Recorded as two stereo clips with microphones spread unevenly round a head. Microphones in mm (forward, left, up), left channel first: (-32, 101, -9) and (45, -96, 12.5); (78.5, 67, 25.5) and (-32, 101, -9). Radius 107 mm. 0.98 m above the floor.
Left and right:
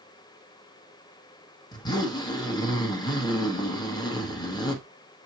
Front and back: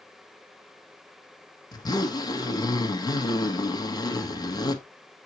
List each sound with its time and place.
1.7 s a zipper: 45° left, 1.6 m